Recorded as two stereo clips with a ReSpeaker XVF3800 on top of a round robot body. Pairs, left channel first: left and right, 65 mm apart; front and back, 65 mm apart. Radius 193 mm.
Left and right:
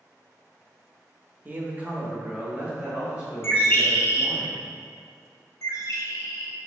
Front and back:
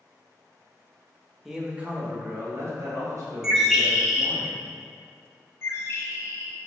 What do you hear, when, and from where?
1.4 s a man speaking: 100° right, 0.9 m; by 4.4 s 170° right, 2 m
3.4 s a bird: 100° left, 0.9 m
5.6 s a bird: 55° left, 0.5 m